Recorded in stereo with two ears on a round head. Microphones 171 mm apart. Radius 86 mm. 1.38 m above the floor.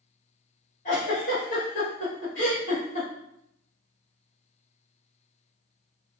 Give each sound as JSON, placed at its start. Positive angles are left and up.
{"t": 0.8, "sound": "a giggle", "side_deg": 45, "distance_m": 2.5}